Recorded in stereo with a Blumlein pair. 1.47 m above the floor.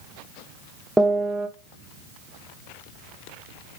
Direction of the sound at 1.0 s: 5° right.